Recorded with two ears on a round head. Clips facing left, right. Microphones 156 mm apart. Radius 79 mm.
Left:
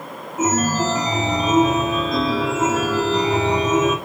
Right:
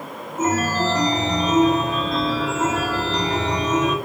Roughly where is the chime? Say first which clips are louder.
Left 1 dB; centre.